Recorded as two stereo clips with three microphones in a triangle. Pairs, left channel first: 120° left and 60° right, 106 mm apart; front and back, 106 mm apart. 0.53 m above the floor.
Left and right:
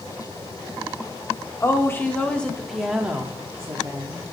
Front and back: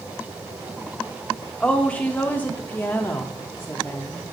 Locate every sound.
1.6 s a woman speaking: 75° left, 1.1 m; by 4.2 s 60° right, 1.1 m